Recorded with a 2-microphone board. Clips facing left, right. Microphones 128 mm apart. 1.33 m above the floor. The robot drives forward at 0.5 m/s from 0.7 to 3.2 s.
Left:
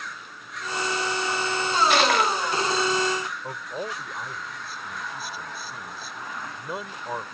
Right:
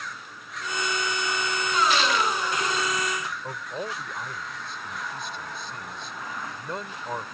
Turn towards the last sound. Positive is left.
turn(degrees=5)  # may be behind; listen again after turning